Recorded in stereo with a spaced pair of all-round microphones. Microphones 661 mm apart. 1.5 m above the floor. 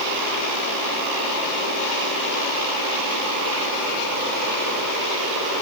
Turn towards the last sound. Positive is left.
No sound to turn to.